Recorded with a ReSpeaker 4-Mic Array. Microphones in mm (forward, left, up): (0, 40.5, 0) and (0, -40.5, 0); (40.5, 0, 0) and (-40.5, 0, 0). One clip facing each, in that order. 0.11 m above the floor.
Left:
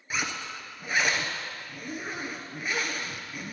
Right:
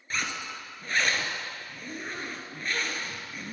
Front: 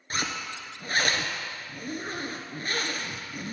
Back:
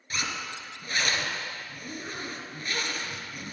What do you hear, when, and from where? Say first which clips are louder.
0.1 s a zipper: left 1 dB, front 2 dB; 15° left, 1.0 m